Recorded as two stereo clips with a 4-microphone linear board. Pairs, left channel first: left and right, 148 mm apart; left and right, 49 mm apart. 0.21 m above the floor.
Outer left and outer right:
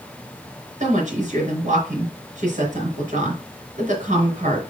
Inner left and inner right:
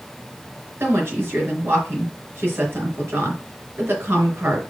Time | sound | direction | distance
0.8 | a woman speaking | 55° right (ahead or behind) | 3.5 m